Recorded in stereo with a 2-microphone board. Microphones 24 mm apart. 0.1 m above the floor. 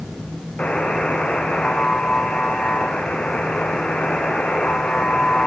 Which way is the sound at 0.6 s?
70° left (ahead or behind).